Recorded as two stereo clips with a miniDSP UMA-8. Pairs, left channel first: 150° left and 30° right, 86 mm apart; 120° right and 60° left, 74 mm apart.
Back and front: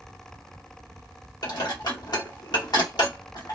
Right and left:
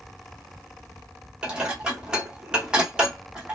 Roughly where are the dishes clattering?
Behind left.